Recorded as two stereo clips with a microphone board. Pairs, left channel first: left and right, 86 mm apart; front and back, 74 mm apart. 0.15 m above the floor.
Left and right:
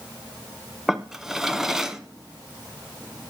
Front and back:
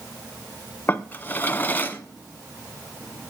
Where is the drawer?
15° right, 0.9 m.